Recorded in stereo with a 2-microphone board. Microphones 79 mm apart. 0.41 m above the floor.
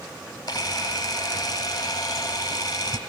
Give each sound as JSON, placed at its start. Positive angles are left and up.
{"t": 0.5, "sound": "a camera shutter", "side_deg": 65, "distance_m": 1.1}